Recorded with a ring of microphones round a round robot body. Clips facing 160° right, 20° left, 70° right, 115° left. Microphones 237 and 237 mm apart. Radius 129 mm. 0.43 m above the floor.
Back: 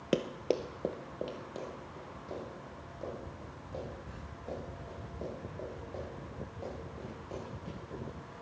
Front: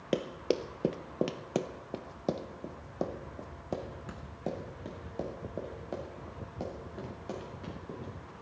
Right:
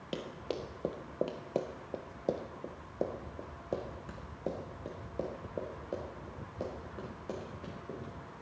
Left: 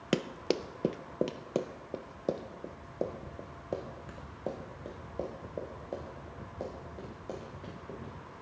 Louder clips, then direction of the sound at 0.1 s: Even, left 8 dB; 125° left.